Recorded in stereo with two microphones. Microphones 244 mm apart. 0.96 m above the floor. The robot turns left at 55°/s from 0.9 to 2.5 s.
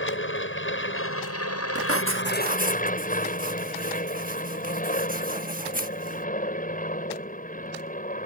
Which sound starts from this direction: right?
Writing, at 1.8 s.